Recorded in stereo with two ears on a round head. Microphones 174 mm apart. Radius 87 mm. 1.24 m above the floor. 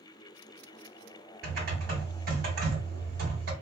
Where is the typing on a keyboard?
55° right (ahead or behind), 2 m.